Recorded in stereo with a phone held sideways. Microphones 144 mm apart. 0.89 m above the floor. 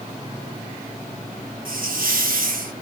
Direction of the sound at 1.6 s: 75° right (ahead or behind).